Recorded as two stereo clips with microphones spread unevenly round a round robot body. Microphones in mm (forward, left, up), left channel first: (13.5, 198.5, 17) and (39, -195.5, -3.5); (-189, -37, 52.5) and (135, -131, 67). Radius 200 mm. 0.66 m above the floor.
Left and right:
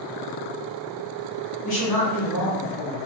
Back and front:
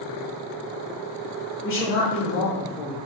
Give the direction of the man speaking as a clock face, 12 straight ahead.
8 o'clock.